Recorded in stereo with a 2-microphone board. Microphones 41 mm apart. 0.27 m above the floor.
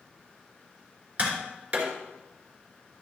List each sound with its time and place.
1.2 s tapping: 30° right (ahead or behind), 3 m